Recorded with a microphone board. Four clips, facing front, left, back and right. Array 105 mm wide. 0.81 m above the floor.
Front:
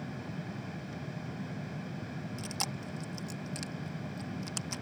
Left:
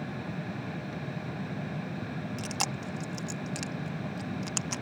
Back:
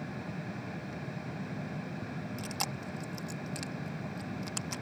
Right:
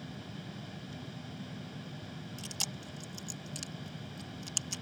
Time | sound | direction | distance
2.4 | chewing | 95° left | ?